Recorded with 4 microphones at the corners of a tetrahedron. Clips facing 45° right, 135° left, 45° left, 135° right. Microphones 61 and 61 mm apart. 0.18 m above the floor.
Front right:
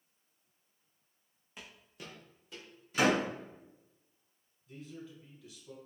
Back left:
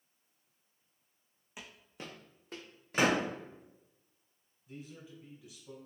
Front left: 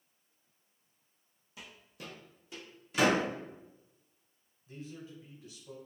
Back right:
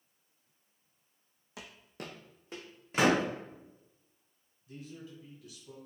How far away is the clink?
No clink in this recording.